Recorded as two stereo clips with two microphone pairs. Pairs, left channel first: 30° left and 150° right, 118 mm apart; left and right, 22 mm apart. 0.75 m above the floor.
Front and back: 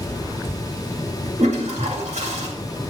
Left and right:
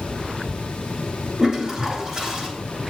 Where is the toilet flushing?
145° right, 2.5 m.